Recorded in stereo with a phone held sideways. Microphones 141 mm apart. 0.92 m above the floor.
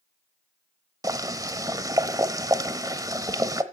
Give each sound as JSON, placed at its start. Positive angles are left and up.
{"t": 1.0, "sound": "boiling", "side_deg": -25, "distance_m": 0.9}